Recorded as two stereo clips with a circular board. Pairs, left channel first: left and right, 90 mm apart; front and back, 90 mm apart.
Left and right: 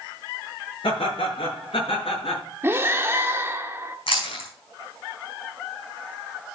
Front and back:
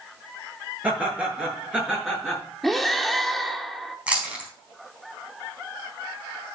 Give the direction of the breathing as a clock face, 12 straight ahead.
3 o'clock.